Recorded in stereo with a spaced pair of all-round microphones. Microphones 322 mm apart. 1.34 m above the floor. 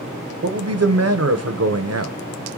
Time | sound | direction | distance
0.4 | a man speaking | 50° right (ahead or behind) | 0.7 m